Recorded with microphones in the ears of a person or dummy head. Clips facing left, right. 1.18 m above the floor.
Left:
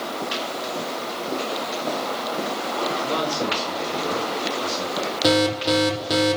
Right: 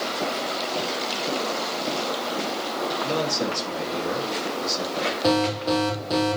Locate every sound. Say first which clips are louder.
3.0 s a man speaking: left 1 dB; 15° right (ahead or behind), 9 m
5.2 s an alarm: left 3 dB; 15° left (ahead or behind), 5 m